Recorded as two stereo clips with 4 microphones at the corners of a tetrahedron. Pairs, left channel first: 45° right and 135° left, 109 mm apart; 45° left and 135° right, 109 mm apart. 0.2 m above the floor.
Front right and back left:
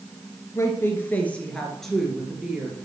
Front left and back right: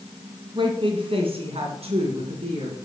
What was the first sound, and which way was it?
A woman speaking, 105° right.